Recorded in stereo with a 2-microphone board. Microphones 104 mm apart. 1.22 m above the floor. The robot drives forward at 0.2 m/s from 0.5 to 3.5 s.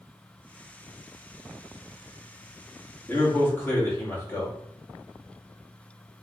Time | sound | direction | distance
3.1 | a man speaking | 20° left (ahead or behind) | 1.3 m